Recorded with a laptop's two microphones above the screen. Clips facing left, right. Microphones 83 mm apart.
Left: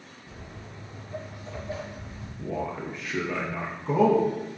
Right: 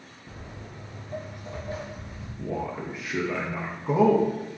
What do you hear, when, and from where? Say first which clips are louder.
0.3 s footsteps: right 2 dB; 45° right (ahead or behind), 1.5 m; by 2.3 s 25° right (ahead or behind), 1.7 m
2.4 s a man speaking: even; 10° right (ahead or behind), 0.6 m